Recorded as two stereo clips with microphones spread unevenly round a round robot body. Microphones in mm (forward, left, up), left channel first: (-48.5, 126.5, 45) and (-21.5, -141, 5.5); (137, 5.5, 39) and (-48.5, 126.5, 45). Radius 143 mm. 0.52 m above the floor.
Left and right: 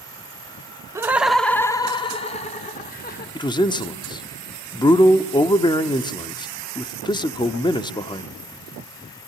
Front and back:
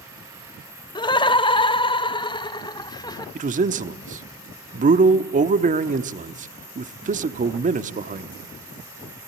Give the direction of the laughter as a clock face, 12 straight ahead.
2 o'clock.